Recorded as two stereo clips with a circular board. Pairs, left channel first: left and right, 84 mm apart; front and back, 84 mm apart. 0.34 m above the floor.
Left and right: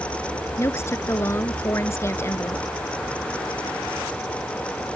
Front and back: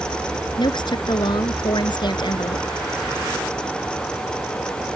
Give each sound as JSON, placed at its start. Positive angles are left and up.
{"t": 0.6, "sound": "a woman speaking", "azimuth_deg": 30}